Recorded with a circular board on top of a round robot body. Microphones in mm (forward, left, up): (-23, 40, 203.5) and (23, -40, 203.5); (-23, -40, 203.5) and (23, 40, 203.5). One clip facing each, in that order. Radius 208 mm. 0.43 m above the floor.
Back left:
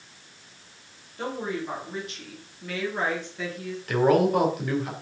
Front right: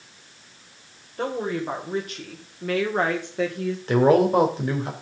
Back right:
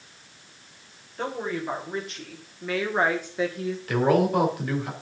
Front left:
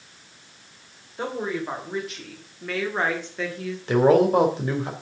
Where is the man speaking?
Straight ahead, 3 m.